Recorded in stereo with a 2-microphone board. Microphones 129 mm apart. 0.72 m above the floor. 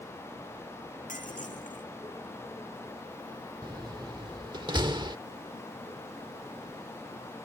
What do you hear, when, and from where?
1.1 s breaking glass: 80° left
3.6 s a door slam: 35° right (ahead or behind)